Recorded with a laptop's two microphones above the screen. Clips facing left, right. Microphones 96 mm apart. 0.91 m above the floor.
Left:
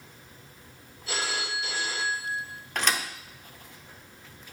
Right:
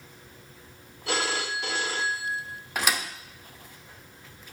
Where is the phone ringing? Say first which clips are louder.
Right 4 dB; 70° right (ahead or behind), 1.0 m.